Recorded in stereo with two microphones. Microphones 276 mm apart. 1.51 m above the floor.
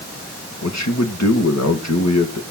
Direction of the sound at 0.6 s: 75° left (ahead or behind).